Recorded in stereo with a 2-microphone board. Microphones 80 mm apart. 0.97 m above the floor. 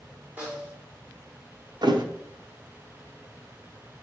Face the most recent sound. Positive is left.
turn(degrees=-65)  # may be behind; listen again after turning